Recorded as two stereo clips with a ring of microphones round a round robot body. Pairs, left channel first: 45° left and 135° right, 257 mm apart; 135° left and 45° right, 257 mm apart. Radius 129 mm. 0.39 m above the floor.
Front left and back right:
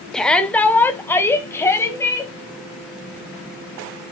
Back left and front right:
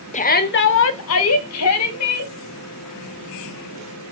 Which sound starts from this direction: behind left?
A shout, at 0.1 s.